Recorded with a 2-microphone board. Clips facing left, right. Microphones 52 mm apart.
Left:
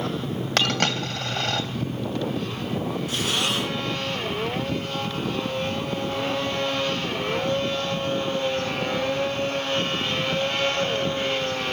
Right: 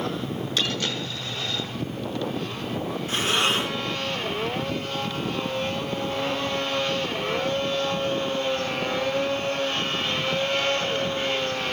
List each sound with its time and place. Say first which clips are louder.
0.6 s a dropped coin: left 6 dB; 70° left (ahead or behind), 2.5 m
3.1 s breathing: right 5 dB; 30° right (ahead or behind), 5 m